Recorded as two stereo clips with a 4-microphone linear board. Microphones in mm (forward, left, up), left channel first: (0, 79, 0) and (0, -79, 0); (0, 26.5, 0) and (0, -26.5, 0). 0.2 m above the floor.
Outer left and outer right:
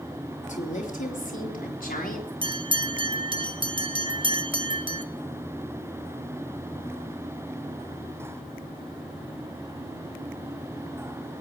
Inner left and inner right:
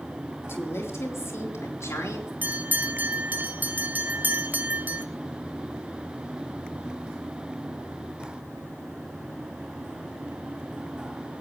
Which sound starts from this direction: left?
A woman speaking, at 0.5 s.